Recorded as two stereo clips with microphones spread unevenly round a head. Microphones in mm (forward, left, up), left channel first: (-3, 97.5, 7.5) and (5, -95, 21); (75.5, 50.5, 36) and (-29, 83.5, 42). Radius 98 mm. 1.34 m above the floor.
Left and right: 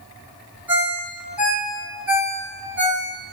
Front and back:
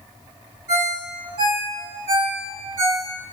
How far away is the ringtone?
About 1.6 m.